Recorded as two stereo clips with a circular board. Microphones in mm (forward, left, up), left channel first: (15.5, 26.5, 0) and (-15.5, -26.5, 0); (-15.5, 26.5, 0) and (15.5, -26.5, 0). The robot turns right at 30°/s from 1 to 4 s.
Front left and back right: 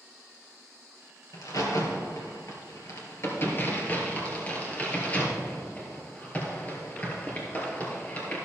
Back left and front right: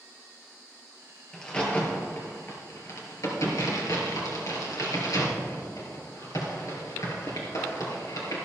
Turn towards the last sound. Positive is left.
turn(degrees=125)